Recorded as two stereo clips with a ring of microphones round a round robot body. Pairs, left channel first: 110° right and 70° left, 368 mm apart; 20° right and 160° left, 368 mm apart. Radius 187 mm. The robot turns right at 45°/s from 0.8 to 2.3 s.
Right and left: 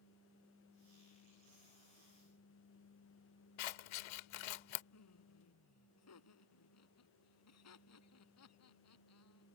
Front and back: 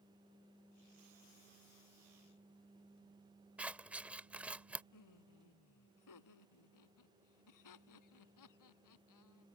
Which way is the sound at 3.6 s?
115° right.